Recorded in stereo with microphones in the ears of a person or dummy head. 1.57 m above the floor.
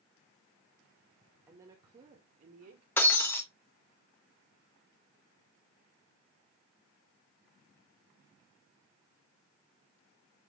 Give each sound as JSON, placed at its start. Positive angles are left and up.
{"t": 1.5, "sound": "a woman speaking", "side_deg": -20, "distance_m": 1.7}
{"t": 3.0, "sound": "breaking glass", "side_deg": 15, "distance_m": 1.1}